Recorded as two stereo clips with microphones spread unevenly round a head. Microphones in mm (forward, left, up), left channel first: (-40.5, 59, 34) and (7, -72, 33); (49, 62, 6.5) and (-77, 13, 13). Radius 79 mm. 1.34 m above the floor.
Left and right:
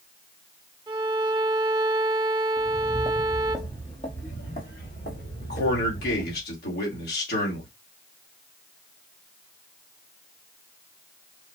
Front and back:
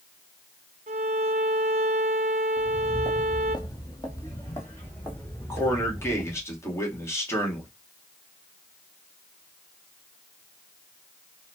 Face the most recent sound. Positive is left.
turn(degrees=90)